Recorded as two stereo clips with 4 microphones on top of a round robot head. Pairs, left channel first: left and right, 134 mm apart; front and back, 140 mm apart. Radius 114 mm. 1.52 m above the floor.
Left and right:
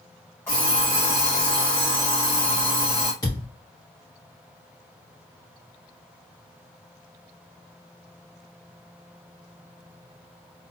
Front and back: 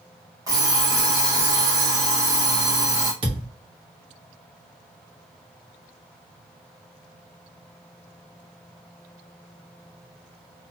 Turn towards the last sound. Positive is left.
turn(degrees=155)